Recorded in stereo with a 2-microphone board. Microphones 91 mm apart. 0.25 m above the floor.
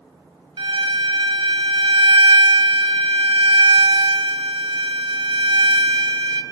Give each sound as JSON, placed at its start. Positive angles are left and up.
{"t": 0.6, "sound": "a violin", "side_deg": -65, "distance_m": 1.2}